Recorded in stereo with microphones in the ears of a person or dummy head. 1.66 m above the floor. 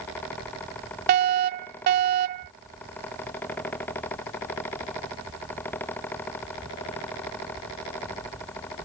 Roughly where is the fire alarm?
Right.